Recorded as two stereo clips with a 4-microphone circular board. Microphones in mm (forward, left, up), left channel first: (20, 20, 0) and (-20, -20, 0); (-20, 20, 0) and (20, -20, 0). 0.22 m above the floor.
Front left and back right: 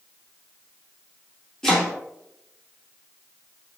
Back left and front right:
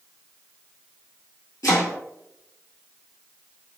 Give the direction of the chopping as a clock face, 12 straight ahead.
8 o'clock.